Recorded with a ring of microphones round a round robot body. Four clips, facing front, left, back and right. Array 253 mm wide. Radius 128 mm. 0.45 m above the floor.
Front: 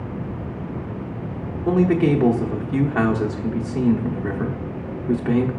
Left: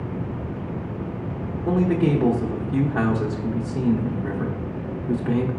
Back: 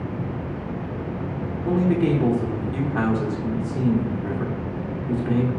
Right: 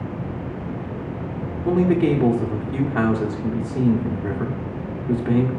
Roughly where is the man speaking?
Ahead right.